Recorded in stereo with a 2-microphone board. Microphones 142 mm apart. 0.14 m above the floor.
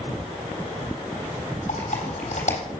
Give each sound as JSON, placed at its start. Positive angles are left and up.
{"t": 1.7, "sound": "typing on a keyboard", "side_deg": 60, "distance_m": 3.0}